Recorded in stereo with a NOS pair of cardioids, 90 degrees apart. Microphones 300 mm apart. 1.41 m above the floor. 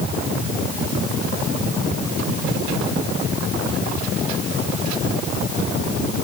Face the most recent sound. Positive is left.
No sound to turn to.